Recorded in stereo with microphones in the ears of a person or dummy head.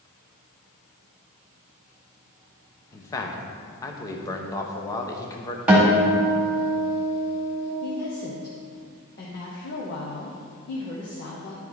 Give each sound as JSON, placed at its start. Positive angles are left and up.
{"t": 2.9, "sound": "a man speaking", "side_deg": 20, "distance_m": 0.9}
{"t": 5.7, "sound": "a guitar", "side_deg": -5, "distance_m": 1.9}
{"t": 7.8, "sound": "a woman speaking", "side_deg": 60, "distance_m": 1.0}